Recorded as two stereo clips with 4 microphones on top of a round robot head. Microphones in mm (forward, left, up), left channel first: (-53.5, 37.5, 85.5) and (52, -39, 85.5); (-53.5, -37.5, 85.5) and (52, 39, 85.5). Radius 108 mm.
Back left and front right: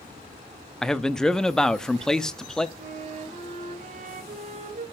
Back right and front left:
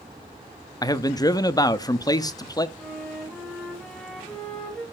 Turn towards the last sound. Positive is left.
turn(degrees=-65)